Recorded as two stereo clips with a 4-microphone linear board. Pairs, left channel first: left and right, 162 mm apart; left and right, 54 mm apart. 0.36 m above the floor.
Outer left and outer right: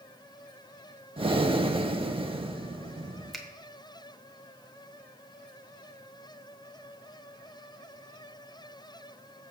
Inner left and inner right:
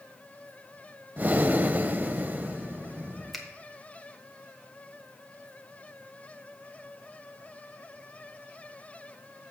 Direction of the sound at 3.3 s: Centre (ahead or behind).